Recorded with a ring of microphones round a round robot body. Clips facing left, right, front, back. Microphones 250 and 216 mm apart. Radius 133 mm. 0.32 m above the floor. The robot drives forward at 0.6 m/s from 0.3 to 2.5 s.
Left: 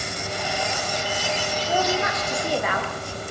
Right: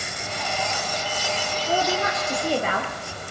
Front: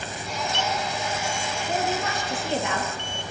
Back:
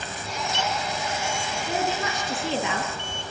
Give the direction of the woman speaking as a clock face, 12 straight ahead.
5 o'clock.